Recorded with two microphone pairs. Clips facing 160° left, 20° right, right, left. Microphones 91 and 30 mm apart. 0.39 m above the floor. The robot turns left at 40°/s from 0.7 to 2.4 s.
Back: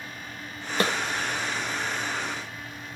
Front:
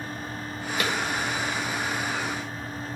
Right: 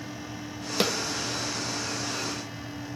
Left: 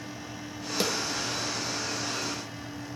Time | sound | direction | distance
0.8 | a snare drum | 150° right | 0.8 m